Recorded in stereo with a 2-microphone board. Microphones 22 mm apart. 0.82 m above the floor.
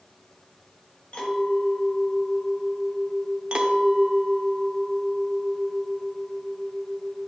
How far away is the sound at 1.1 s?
About 2.5 m.